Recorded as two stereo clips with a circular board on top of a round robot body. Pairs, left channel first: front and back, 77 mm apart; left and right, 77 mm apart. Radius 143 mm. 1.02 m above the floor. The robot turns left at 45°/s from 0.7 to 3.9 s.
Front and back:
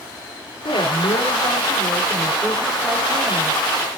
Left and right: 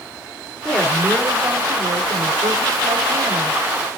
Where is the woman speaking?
5° left, 4.5 m; by 3.5 s 125° right, 4.5 m.